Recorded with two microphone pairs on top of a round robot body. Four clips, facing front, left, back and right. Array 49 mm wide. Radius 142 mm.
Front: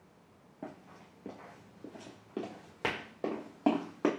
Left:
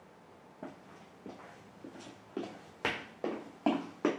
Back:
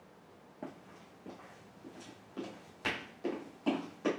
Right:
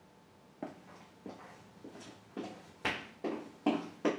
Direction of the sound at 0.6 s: 100° right.